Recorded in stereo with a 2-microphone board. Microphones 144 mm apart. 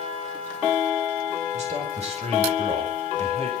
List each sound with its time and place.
1.5 s a man speaking: 50° right (ahead or behind), 7 m